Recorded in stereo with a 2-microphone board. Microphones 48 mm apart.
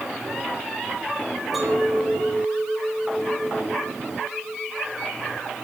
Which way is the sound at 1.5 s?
Centre (ahead or behind).